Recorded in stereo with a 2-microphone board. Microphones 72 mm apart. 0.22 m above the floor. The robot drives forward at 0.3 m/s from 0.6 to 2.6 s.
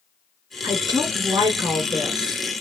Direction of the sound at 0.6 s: 60° right (ahead or behind).